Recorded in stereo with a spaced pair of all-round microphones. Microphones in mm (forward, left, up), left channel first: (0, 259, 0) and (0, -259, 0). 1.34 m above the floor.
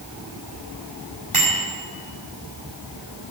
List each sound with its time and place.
1.3 s a bicycle bell: 85° right, 7 m